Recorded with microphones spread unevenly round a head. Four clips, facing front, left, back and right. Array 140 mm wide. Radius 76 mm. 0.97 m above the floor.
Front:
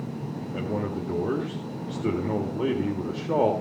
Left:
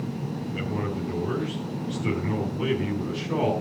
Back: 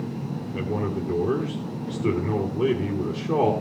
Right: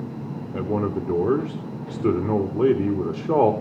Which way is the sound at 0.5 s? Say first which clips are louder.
Right 8 dB, back 2 dB; 80° right.